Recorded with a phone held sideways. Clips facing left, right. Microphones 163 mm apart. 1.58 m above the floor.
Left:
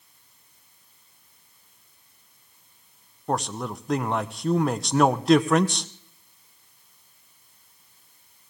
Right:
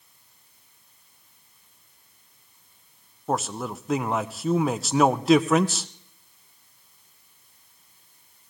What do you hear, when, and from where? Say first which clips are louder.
3.3 s a man speaking: even; 5° right (ahead or behind), 0.6 m